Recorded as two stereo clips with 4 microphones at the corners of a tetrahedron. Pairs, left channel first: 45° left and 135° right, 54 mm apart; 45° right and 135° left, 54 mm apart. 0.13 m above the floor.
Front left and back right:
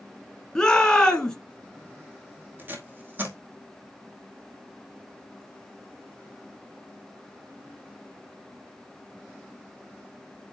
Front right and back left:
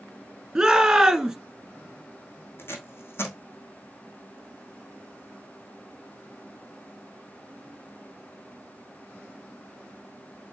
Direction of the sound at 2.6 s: 85° right.